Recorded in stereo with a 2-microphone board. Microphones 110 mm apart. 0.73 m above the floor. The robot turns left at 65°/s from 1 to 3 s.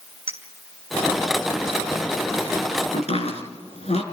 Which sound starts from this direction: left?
Chopping, at 2.9 s.